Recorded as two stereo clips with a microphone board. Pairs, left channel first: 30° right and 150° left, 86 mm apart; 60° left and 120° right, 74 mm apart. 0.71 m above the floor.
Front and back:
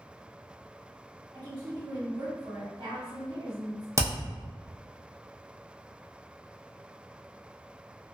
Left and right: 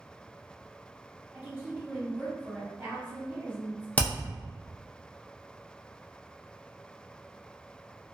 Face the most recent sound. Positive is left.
turn(degrees=115)